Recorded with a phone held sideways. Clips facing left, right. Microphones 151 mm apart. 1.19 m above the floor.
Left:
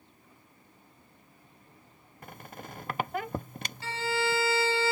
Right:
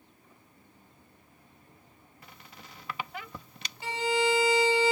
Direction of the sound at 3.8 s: 15° right (ahead or behind).